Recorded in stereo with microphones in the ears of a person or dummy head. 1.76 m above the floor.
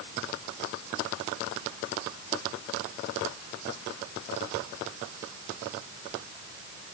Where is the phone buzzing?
I don't hear a phone buzzing.